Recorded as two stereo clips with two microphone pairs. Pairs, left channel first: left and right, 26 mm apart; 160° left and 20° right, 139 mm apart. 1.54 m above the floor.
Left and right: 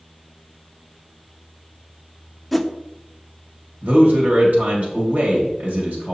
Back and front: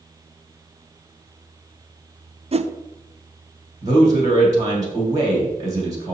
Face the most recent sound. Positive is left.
turn(degrees=-60)